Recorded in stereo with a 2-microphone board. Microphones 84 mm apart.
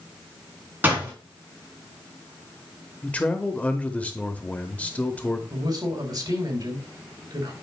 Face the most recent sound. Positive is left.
turn(degrees=-50)  # may be behind; listen again after turning